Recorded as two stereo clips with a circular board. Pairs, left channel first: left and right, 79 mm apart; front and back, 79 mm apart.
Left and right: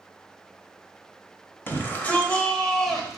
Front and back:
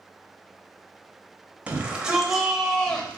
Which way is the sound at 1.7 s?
125° left.